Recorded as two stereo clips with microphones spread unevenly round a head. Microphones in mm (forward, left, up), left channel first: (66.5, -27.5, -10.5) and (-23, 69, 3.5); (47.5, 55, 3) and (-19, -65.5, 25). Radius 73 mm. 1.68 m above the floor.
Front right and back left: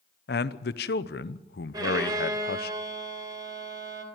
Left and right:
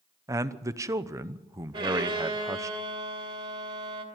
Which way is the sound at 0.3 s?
50° right.